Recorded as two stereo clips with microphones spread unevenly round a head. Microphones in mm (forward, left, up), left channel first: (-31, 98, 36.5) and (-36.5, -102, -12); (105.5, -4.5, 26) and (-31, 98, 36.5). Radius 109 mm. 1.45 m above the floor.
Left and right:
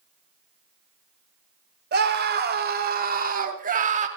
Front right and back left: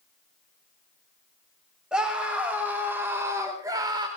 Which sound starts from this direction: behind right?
A scream, at 1.9 s.